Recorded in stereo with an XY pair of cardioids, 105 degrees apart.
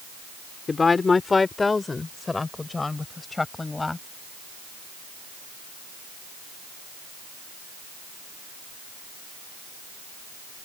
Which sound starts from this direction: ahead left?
A woman speaking, at 0.7 s.